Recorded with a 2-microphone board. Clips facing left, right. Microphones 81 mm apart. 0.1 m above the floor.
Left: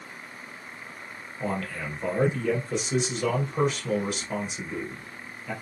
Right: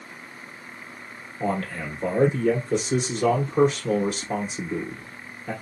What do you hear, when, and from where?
1.4 s a man speaking: 35° right (ahead or behind), 2 m